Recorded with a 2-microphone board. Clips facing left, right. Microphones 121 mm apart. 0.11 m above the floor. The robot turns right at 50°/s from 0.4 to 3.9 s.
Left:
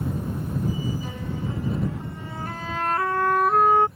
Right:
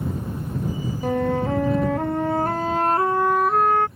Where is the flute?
125° right; by 3.9 s 15° left.